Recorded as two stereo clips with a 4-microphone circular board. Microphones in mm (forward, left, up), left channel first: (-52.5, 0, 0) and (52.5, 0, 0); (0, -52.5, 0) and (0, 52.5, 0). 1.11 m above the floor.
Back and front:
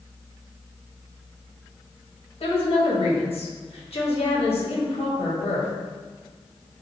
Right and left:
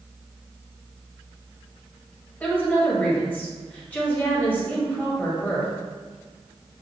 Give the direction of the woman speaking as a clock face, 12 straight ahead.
6 o'clock.